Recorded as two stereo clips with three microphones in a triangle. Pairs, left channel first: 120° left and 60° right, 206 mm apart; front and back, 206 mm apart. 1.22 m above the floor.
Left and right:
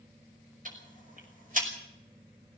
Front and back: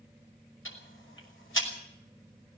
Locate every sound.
0.7 s ticking: 10° right, 6 m